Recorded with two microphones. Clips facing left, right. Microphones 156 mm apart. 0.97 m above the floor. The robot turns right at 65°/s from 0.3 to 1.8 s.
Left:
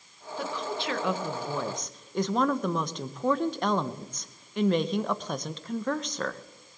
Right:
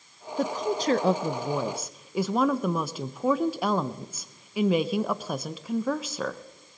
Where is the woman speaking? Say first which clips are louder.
Right 6 dB; 100° right, 0.5 m; by 6.4 s 10° right, 0.5 m.